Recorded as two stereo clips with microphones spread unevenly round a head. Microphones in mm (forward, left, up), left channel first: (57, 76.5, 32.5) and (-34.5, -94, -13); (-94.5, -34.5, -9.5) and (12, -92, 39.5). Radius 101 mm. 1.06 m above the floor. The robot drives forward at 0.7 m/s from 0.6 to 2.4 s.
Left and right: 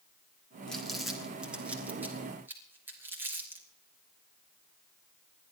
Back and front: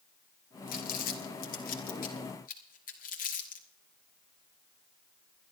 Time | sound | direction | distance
0.7 | crumpling | 140° left | 1.8 m